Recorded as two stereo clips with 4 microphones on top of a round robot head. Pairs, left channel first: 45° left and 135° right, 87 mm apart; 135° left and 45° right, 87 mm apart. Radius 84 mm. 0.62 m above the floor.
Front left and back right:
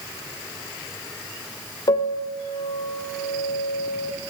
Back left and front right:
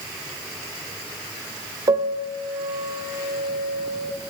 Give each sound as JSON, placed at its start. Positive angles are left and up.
{"t": 1.9, "sound": "a piano", "azimuth_deg": 0, "distance_m": 1.5}